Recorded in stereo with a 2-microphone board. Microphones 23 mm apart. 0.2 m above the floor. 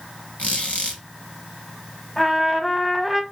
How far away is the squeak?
About 1.8 m.